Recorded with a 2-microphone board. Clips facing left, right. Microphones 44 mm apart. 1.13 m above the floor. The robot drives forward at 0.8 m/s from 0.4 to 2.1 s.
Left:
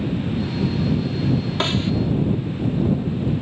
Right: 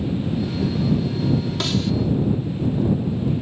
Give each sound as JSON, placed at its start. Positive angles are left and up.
{"t": 1.6, "sound": "a snare drum", "side_deg": 30}